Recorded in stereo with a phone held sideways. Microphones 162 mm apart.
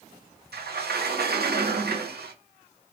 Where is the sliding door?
80° right, 0.5 m.